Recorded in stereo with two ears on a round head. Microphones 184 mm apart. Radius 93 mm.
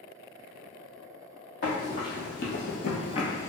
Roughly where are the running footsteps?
Left.